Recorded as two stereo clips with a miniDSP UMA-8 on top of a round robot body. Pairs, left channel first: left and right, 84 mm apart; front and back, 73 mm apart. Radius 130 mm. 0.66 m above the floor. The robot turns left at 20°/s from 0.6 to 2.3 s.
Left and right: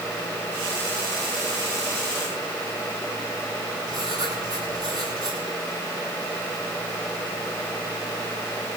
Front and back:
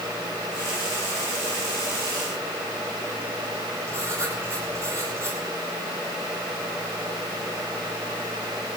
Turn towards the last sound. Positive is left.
turn(degrees=-130)